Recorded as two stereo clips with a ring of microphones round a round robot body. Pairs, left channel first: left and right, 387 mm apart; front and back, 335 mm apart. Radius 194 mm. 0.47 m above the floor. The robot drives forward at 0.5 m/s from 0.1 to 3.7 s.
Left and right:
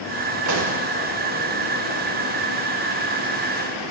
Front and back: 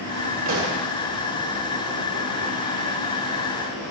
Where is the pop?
130° right, 1.8 m; by 0.8 s 135° right, 1.9 m.